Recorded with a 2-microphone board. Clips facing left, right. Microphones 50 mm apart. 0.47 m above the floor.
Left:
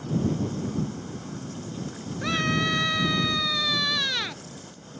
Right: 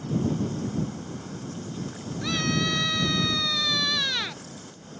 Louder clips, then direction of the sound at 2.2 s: Left 2 dB; 25° left (ahead or behind).